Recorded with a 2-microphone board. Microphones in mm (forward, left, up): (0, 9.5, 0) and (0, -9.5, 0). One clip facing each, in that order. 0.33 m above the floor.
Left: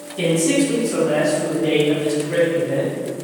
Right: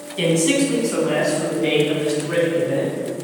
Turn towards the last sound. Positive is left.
turn(degrees=-75)  # may be behind; listen again after turning